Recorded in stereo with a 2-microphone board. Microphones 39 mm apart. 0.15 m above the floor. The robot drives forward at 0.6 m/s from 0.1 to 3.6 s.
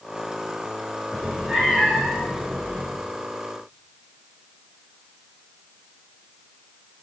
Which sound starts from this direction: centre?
A cat meowing, at 1.1 s.